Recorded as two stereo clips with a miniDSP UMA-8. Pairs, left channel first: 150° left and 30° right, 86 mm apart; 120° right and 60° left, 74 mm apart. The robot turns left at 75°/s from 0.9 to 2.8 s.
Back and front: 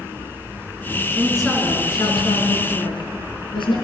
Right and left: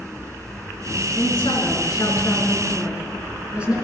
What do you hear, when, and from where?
1.1 s a woman speaking: 100° right, 4 m; by 3.8 s 135° left, 4 m